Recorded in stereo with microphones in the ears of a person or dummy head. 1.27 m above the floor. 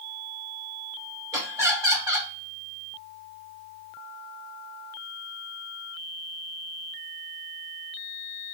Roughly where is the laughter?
Centre.